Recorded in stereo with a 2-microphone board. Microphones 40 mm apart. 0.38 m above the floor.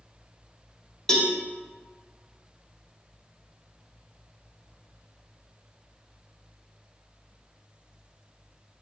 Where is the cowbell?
15° left (ahead or behind), 0.5 m.